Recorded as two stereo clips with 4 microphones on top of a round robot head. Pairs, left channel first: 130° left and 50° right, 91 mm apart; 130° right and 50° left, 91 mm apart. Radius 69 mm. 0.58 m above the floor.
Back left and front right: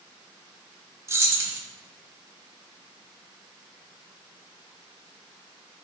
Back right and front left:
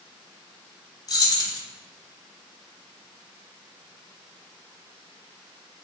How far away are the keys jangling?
About 0.8 m.